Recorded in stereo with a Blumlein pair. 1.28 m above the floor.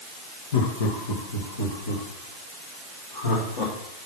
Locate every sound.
0.5 s laughter: 60° left, 1.3 m; by 3.7 s 65° left, 3.5 m